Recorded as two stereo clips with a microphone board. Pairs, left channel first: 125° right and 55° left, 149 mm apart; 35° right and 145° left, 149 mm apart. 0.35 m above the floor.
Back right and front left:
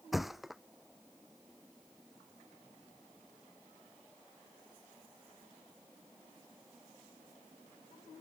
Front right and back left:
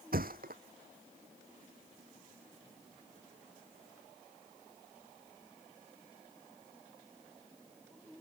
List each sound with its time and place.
0.1 s a thud: 145° left